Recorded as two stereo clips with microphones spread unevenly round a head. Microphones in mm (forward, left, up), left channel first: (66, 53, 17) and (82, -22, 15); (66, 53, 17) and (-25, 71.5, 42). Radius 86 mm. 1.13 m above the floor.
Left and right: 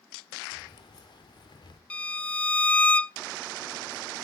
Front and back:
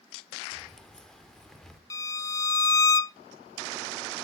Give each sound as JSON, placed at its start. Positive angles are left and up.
{"t": 0.5, "sound": "keys jangling", "azimuth_deg": 75, "distance_m": 2.0}
{"t": 1.9, "sound": "a violin", "azimuth_deg": 30, "distance_m": 0.5}